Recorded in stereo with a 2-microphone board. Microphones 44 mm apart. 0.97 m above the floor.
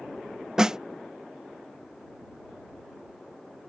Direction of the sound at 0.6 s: 15° right (ahead or behind).